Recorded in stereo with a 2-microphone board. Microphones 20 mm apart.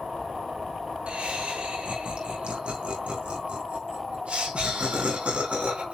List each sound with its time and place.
1.1 s laughter: 75° right (ahead or behind), 4.5 m